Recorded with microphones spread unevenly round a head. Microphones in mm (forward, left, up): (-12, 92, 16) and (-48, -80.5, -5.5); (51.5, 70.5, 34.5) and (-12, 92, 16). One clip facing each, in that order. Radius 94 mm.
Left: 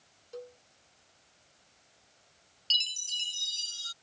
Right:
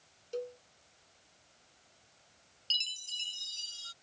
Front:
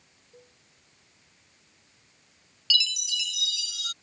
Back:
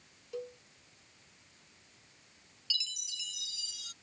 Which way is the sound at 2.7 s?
5° left.